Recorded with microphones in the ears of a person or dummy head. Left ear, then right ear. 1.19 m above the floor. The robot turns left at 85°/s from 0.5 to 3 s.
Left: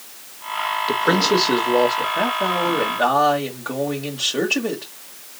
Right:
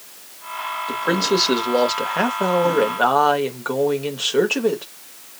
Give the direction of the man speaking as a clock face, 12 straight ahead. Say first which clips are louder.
Left 2 dB; 11 o'clock.